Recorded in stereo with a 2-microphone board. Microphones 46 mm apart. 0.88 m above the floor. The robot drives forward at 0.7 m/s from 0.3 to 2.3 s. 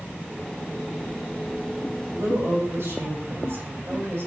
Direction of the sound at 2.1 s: 60° right (ahead or behind).